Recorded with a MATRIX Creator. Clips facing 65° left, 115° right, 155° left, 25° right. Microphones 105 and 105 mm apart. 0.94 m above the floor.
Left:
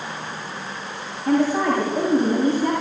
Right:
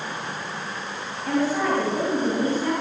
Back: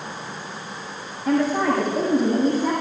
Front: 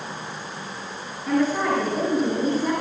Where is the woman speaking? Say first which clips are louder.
Left 4 dB, back 2 dB; 135° left, 7 m; by 2.7 s 140° left, 7 m.